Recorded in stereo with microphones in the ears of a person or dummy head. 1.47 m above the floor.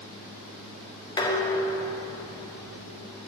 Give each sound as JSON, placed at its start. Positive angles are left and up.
{"t": 1.2, "sound": "dishes clattering", "side_deg": 20, "distance_m": 1.0}